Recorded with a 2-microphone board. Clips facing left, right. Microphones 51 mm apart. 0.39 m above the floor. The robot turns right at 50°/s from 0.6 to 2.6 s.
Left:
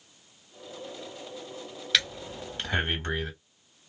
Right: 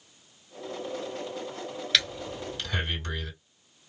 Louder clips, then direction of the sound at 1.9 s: Even; centre (ahead or behind).